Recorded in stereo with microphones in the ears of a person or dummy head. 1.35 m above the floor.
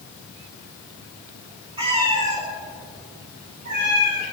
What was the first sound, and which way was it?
A cat meowing, 25° right (ahead or behind).